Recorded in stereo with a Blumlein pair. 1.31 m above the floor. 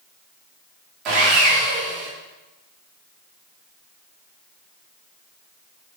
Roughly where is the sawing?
Ahead right.